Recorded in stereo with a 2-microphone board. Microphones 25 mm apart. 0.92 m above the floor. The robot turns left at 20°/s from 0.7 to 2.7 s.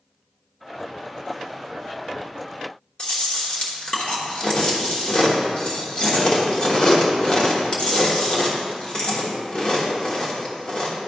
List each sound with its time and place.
3.0 s chewing: 40° left (ahead or behind), 1.3 m